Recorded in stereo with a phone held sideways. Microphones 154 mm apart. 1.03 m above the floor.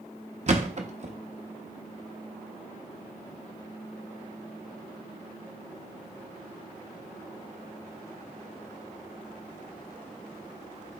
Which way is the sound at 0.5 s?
50° right (ahead or behind).